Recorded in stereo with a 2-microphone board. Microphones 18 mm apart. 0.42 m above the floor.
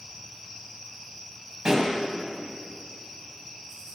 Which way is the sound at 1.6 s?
25° right (ahead or behind).